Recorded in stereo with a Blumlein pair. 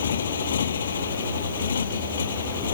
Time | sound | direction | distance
0.0 | a motorcycle | 65° left | ?